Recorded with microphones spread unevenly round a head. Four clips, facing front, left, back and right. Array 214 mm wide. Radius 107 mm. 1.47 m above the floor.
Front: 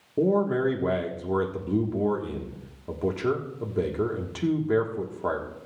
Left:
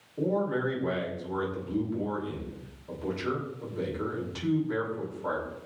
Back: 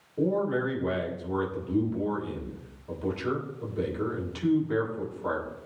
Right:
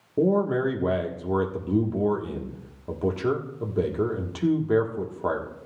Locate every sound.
0.2 s a man speaking: 50° right, 1.5 m